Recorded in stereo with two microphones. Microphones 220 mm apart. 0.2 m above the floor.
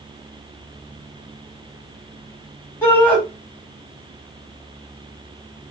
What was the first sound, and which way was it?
A shout, 10° left (ahead or behind).